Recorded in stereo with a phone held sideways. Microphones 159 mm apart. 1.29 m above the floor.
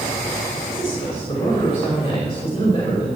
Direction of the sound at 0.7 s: 25° left (ahead or behind).